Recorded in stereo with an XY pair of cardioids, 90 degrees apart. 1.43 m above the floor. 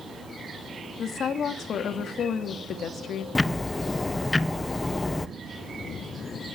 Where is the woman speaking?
65° left, 2.5 m.